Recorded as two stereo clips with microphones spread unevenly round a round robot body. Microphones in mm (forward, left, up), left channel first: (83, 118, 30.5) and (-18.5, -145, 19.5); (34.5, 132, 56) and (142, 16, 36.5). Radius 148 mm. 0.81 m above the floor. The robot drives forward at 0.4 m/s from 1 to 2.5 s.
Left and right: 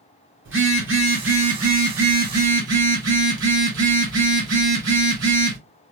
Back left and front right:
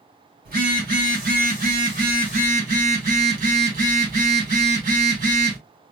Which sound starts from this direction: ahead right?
A phone buzzing, at 0.5 s.